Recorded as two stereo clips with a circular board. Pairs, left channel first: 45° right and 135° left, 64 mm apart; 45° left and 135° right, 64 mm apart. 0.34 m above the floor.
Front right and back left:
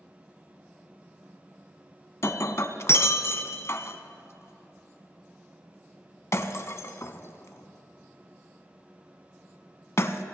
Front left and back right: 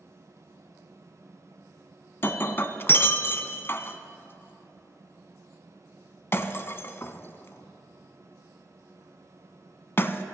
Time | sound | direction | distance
2.2 | breaking glass | 5° right | 0.6 m